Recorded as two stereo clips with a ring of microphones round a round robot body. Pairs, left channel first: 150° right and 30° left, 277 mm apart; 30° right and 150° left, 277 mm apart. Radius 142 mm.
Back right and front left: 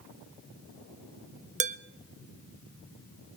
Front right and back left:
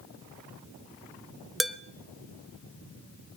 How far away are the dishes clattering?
About 0.7 m.